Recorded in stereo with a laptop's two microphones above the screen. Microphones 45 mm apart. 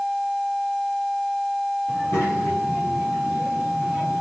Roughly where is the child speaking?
Left.